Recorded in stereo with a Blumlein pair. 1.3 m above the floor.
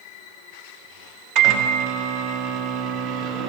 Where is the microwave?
40° right, 1.2 m.